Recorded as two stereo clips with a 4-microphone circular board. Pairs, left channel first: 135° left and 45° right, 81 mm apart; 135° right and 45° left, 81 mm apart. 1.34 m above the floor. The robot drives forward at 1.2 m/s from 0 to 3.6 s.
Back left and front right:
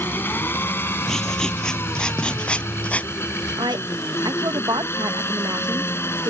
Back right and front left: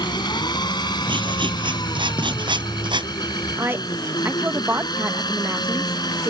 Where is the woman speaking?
15° right.